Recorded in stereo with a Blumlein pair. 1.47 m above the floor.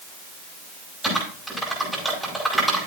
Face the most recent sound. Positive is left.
turn(degrees=-5)